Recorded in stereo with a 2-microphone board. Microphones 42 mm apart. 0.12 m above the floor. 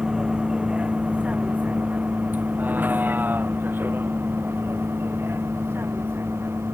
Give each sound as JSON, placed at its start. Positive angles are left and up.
{"t": 0.0, "sound": "a vehicle", "side_deg": -20}